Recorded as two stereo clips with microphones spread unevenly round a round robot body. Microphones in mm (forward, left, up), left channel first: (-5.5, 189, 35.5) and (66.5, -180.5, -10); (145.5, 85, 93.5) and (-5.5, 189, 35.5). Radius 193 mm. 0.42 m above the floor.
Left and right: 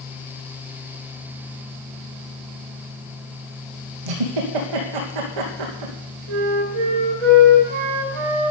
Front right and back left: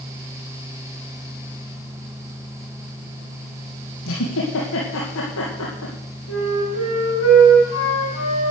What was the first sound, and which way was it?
A giggle, 55° right.